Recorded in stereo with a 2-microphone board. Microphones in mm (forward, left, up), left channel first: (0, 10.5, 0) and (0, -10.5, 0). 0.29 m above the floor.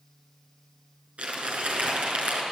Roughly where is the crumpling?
Right.